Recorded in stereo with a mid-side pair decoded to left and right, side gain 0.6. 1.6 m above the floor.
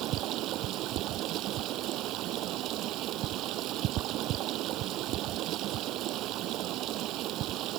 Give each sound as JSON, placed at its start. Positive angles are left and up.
{"t": 0.0, "sound": "running water", "azimuth_deg": -65}